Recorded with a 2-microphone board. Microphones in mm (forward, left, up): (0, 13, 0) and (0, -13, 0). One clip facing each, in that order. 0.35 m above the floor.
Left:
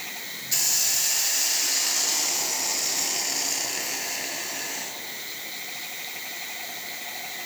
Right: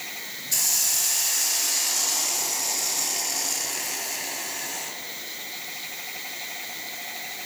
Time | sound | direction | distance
0.5 | a hiss | 10° left (ahead or behind) | 2 m